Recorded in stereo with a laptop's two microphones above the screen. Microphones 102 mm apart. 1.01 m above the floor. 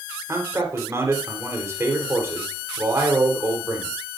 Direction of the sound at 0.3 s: 30° right (ahead or behind).